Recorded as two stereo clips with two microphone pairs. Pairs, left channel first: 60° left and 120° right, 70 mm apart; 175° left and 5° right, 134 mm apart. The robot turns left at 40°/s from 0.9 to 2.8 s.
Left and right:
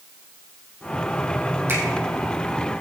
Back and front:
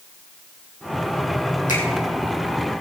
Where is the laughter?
I don't hear laughter.